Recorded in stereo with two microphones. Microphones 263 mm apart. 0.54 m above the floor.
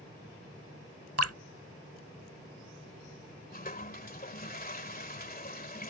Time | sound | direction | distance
1.2 | dripping | 65° right (ahead or behind) | ?
3.5 | a toilet flushing | 35° left (ahead or behind) | ?